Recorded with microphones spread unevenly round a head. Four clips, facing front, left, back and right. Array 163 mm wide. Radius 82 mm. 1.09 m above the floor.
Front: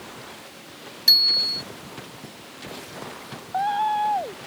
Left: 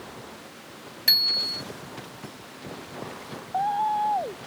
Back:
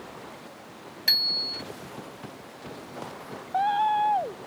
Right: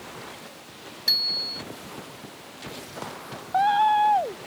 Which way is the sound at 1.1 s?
115° left.